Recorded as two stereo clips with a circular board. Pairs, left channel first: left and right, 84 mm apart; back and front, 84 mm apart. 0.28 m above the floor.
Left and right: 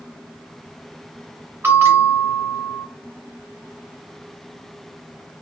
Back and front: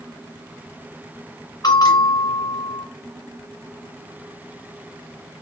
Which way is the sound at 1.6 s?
155° right.